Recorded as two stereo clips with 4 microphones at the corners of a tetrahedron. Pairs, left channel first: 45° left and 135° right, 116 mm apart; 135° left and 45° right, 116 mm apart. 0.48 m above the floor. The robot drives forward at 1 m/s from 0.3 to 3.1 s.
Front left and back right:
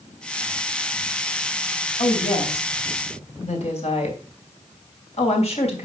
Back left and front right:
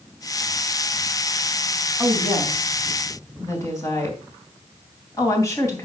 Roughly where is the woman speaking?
Ahead left.